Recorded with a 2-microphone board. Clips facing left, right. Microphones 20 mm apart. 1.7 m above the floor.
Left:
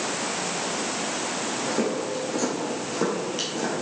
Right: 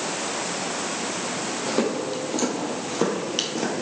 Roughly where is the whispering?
No whispering in this recording.